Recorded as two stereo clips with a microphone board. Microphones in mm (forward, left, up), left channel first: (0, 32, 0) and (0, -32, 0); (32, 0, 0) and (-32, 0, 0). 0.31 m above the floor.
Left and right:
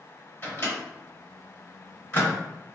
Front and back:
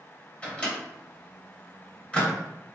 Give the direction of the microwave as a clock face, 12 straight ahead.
10 o'clock.